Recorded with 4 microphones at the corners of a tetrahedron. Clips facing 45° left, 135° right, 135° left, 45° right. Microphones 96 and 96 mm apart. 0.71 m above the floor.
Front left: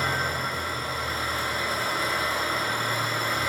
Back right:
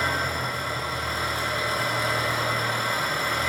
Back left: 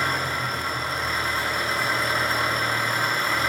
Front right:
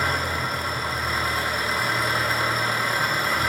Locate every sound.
0.0 s an engine running: 130° right, 2.5 m